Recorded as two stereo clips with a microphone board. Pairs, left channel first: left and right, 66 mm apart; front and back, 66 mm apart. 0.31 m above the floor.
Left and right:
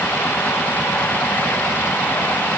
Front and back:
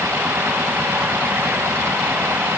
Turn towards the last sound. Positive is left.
No sound to turn to.